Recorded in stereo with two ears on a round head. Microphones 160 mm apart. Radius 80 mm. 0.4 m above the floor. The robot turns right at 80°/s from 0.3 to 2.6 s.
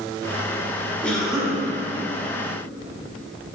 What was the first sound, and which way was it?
A cough, 10° left (ahead or behind).